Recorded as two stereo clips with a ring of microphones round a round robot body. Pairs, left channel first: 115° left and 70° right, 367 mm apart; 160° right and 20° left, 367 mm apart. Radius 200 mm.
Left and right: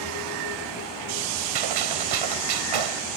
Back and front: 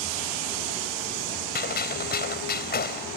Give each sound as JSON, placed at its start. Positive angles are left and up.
{"t": 1.6, "sound": "a gunshot", "azimuth_deg": -90}